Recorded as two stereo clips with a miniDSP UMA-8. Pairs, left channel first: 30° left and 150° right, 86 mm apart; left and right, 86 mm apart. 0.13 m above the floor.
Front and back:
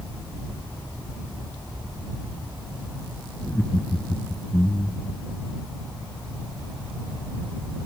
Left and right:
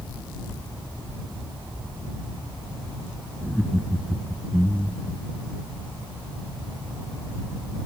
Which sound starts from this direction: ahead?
Laughter, at 3.4 s.